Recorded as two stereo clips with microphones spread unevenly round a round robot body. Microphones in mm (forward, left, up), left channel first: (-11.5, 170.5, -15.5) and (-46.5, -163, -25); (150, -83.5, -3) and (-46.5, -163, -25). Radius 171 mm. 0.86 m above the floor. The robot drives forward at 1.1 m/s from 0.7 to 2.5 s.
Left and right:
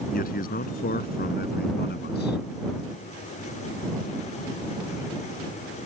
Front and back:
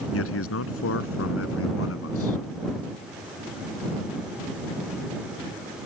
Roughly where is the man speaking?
Ahead.